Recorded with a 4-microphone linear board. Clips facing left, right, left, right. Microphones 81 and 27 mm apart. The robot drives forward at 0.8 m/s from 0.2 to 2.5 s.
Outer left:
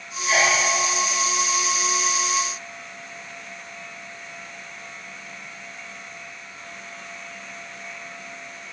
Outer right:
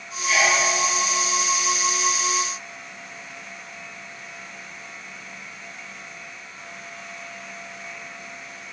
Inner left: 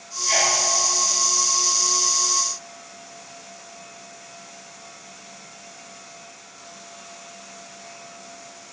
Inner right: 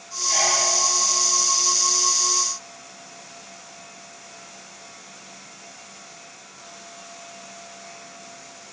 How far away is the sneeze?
About 5 m.